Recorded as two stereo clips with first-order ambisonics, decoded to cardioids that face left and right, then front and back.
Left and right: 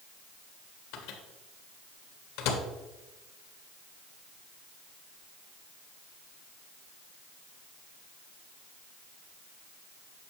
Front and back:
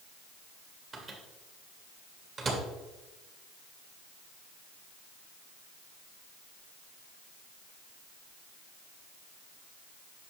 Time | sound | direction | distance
0.9 | a microwave | 115° left | 1.6 m